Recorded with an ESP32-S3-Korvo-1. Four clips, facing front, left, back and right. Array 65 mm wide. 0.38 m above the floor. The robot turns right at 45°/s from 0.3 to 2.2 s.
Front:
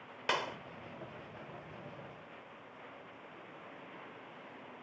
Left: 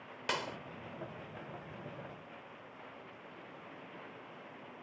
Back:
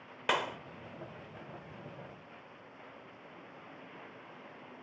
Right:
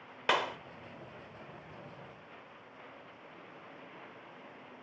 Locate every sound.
0.3 s a clap: 110° right; by 0.6 s 95° right